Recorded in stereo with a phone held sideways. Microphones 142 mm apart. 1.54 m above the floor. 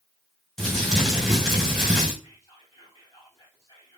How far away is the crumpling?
About 7 m.